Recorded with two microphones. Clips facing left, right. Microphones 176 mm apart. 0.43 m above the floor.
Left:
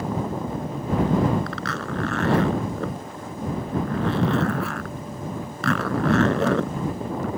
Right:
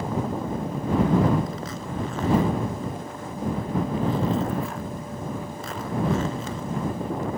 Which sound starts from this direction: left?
A zipper, at 1.5 s.